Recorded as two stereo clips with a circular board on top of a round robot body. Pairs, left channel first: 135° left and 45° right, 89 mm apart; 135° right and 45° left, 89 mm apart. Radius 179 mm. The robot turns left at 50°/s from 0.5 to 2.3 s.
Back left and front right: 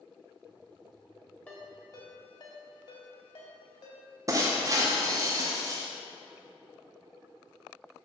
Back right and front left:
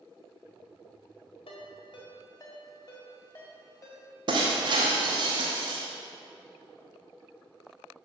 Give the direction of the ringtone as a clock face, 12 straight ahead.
5 o'clock.